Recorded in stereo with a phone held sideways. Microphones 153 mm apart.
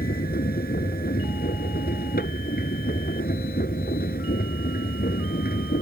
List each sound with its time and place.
0.0 s a machine running: 90° left